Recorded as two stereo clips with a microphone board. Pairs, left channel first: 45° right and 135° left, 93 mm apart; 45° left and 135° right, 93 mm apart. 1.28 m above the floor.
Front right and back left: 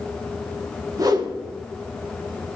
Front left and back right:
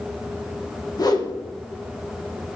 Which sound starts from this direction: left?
A whoosh, at 1.0 s.